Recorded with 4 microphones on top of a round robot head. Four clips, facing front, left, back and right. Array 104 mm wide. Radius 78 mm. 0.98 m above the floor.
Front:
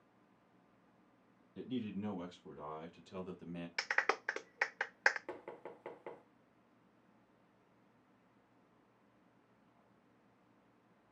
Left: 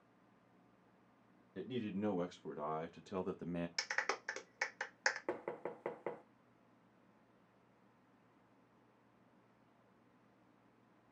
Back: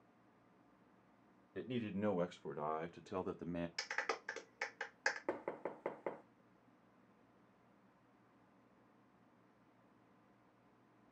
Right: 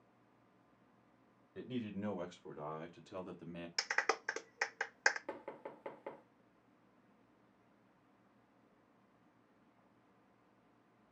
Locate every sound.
1.6 s a man speaking: 160° left, 2 m; by 3.7 s 130° left, 1.0 m
3.8 s a clap: 30° right, 0.7 m
5.3 s knocking: 140° left, 0.8 m